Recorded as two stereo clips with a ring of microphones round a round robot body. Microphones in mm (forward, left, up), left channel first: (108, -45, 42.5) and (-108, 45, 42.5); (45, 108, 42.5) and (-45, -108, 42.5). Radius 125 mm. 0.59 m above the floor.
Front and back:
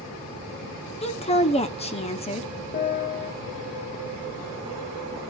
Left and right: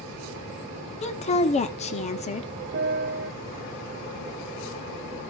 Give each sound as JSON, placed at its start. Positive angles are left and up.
{"t": 1.0, "sound": "a woman speaking", "azimuth_deg": 25, "distance_m": 1.1}
{"t": 2.7, "sound": "a piano", "azimuth_deg": -70, "distance_m": 0.8}